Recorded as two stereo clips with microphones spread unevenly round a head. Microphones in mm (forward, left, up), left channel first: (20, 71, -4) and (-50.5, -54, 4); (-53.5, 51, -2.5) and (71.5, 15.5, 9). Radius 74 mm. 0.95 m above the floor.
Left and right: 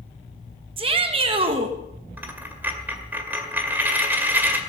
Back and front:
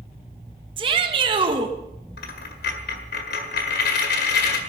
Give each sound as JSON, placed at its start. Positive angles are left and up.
{"t": 0.8, "sound": "a shout", "azimuth_deg": -70, "distance_m": 1.3}
{"t": 2.2, "sound": "a dropped coin", "azimuth_deg": 165, "distance_m": 1.9}